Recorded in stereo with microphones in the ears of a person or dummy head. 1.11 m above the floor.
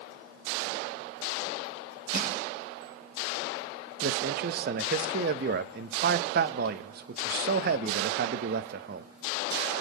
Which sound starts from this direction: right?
A man speaking, at 4.0 s.